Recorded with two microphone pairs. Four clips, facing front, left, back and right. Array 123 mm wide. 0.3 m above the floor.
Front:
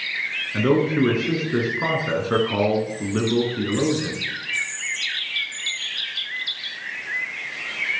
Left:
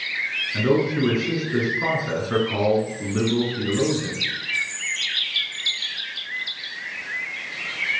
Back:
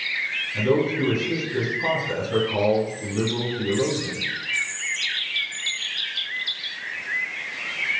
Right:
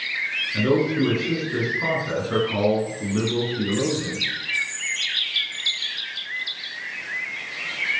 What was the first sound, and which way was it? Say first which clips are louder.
A man speaking: even, front 3 dB; straight ahead.